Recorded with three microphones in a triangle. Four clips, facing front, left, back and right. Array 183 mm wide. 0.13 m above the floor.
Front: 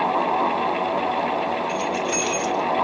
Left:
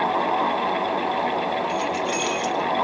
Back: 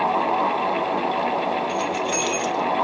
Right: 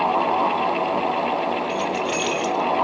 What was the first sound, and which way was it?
Keys jangling, 115° right.